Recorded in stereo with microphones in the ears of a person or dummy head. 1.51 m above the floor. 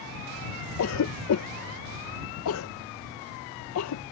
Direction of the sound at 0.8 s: 80° left.